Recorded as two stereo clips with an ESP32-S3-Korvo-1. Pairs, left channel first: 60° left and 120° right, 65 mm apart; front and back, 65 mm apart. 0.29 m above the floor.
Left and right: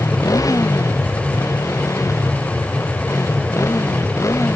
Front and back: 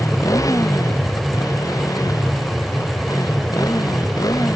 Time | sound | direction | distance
0.0 | a motorcycle | 35° left | ?